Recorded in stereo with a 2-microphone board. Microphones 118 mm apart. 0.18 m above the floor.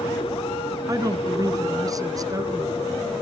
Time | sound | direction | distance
0.9 | a woman speaking | 30° right (ahead or behind) | 1.8 m